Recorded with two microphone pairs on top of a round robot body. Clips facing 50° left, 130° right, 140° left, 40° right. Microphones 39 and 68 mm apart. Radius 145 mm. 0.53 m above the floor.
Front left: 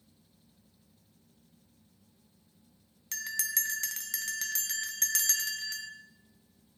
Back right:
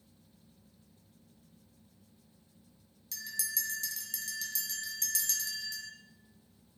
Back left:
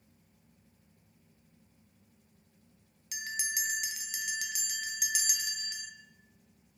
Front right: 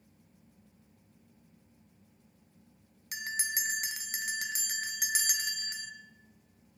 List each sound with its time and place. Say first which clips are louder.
3.1 s a bell: front left 5 dB, front right 1 dB; 10° left, 0.5 m